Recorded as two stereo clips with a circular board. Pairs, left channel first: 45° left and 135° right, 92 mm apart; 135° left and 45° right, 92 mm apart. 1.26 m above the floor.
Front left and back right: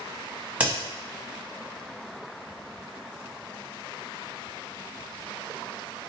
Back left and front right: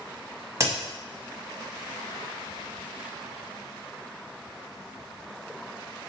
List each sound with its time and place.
0.6 s a crack: 70° right, 1.3 m